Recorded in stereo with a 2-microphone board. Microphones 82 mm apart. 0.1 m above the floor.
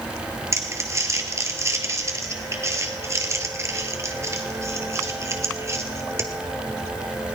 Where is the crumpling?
35° right (ahead or behind), 1.6 m.